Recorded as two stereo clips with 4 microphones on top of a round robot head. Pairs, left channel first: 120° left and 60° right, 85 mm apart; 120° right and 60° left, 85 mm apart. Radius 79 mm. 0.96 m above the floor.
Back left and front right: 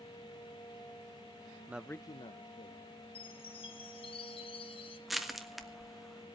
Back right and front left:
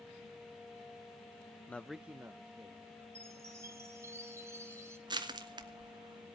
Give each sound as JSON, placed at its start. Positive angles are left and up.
{"t": 1.7, "sound": "a man speaking", "azimuth_deg": -75, "distance_m": 0.5}
{"t": 3.1, "sound": "a chime", "azimuth_deg": 115, "distance_m": 1.7}
{"t": 5.1, "sound": "crushing", "azimuth_deg": 30, "distance_m": 1.5}